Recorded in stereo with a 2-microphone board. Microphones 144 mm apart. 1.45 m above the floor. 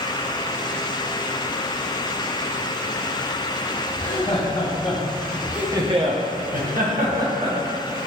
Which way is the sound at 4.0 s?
55° left (ahead or behind).